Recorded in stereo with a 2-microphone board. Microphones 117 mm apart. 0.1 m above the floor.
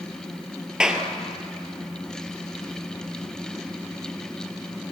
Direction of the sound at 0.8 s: 5° right (ahead or behind).